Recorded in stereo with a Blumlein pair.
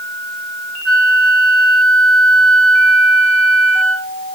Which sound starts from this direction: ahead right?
A flute, at 0.8 s.